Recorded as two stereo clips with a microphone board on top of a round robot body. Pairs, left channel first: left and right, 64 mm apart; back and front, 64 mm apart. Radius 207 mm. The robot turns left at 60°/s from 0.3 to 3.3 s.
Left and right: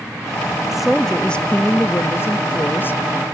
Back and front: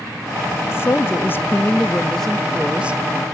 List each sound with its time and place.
0.7 s a woman speaking: 170° right, 0.9 m; by 3.3 s 35° left, 0.9 m